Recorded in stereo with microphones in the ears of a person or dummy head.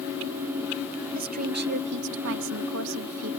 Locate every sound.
1.1 s a woman speaking: 45° right (ahead or behind); by 3.3 s 75° right (ahead or behind)